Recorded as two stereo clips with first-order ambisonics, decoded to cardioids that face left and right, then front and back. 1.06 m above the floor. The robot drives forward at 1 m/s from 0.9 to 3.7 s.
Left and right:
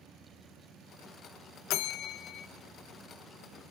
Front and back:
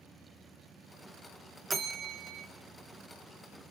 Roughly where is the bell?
Left.